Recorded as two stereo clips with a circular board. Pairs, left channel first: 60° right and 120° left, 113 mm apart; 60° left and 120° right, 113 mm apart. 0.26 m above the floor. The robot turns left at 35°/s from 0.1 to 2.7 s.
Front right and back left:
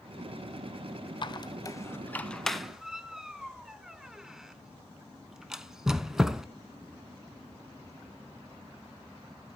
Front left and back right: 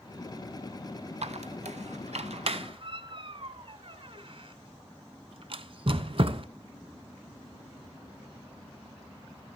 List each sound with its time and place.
1.2 s a squeak: 100° right, 0.6 m; by 6.5 s 155° right, 0.6 m